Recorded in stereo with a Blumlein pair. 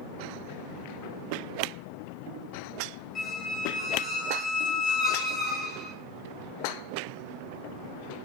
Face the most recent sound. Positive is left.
turn(degrees=5)